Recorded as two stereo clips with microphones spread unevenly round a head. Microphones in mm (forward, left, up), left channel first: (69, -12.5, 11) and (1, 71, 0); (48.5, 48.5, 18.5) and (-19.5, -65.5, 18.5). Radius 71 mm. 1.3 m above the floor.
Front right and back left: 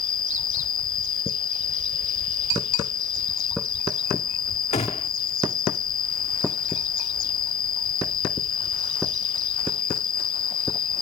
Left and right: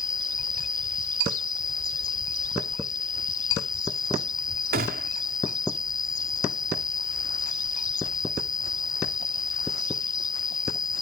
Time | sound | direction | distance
0.0 | an insect | 5° right | ?
4.7 | a gunshot | 100° right | ?